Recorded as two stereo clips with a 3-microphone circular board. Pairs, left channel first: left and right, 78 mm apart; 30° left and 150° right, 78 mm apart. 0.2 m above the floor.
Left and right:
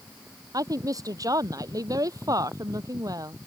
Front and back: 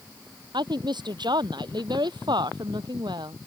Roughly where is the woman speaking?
Behind right.